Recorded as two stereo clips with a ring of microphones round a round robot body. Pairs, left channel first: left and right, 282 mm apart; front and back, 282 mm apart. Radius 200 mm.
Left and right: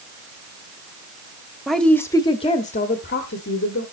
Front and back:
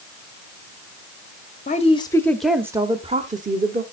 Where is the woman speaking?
Straight ahead, 1.0 m; by 3.8 s 130° left, 1.4 m.